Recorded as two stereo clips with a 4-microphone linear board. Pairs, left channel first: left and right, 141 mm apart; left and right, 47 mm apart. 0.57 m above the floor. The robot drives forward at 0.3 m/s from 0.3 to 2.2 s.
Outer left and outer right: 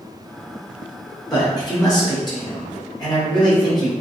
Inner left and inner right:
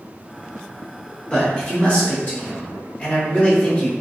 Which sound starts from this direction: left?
A man speaking, at 1.3 s.